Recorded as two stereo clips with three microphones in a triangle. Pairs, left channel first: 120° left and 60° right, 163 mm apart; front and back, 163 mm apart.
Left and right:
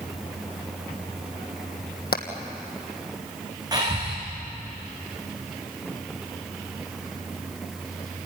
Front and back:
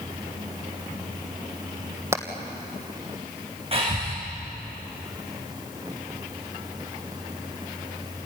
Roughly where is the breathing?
Behind right.